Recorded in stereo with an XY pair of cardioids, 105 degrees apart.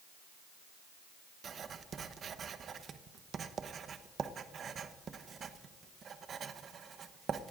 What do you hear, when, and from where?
1.4 s writing: 50° right, 0.9 m